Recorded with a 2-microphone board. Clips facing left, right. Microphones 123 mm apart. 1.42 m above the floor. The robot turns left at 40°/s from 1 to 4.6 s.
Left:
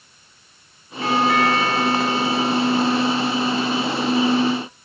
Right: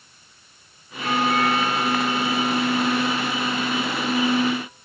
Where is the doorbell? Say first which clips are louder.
Left 3 dB; 105° left, 2.5 m; by 4.5 s 35° right, 2.5 m.